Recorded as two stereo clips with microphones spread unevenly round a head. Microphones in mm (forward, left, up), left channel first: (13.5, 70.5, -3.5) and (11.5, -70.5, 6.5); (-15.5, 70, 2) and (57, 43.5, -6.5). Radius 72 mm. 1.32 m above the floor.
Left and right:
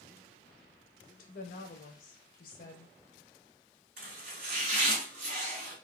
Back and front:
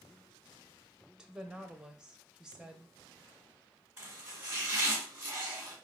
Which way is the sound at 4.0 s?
95° right.